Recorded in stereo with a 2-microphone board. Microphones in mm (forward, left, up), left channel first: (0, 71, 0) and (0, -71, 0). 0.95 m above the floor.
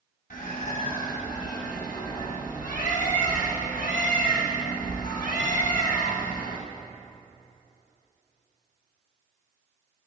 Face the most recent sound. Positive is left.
turn(degrees=70)  # may be behind; listen again after turning